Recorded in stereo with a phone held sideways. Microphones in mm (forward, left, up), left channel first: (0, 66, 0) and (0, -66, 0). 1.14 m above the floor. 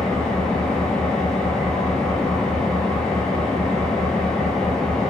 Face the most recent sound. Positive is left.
turn(degrees=5)  # may be behind; listen again after turning